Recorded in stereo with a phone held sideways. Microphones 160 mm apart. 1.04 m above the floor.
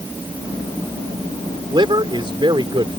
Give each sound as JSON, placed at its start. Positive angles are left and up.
{"t": 1.7, "sound": "a man speaking", "side_deg": -30}